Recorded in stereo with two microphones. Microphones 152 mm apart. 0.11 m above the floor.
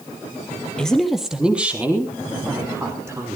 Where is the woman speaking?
5° left (ahead or behind), 2.5 m; by 3.4 s 20° right (ahead or behind), 6 m.